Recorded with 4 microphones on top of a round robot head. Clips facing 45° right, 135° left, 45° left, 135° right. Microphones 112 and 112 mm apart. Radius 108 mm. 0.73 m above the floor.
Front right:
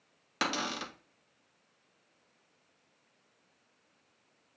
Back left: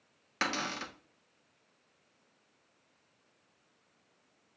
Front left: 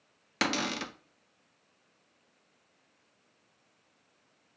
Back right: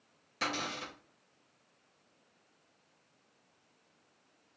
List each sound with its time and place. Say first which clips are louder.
0.4 s a cupboard door: front right 1 dB, front left 6 dB; 30° left, 0.5 m